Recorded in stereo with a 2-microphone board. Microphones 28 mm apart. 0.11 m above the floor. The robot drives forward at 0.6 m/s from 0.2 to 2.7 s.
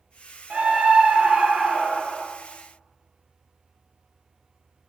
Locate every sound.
0.5 s a scream: 40° right (ahead or behind), 2 m; by 2.2 s 35° right (ahead or behind), 2.5 m